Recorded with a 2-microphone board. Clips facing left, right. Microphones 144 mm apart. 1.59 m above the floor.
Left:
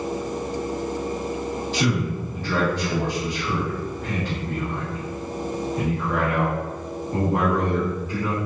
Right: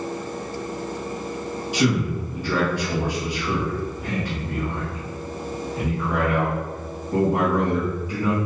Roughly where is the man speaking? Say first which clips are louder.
Right 4 dB; centre.